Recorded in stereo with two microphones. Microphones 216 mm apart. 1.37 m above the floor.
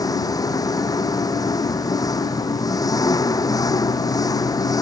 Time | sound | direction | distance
0.0 | an engine running | 15° left (ahead or behind) | ?